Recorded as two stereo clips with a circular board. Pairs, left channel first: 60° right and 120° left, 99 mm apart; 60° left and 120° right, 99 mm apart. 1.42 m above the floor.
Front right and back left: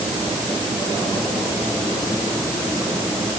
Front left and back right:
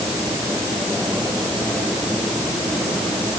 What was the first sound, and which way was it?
Only background noise.